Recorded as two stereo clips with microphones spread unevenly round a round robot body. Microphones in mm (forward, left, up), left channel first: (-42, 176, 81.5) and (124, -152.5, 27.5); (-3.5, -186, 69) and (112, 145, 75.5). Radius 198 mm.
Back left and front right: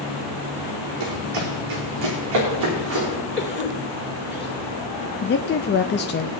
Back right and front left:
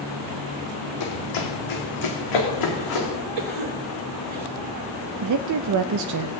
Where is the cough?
55° left, 2.5 m.